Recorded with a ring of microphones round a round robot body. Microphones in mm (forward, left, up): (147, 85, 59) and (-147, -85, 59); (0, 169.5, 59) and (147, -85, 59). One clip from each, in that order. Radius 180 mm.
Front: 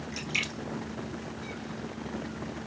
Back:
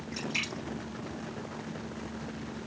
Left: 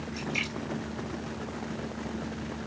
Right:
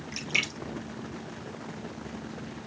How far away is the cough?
I don't hear a cough.